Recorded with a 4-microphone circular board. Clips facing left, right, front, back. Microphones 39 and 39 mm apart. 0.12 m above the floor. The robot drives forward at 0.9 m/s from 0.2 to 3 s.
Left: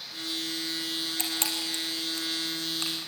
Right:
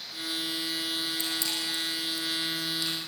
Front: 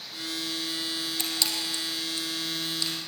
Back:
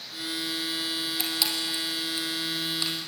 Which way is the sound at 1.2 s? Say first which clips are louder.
Even, even; 100° left.